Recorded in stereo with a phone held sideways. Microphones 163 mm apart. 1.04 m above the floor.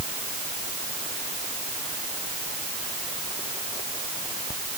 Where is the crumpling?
No crumpling in this recording.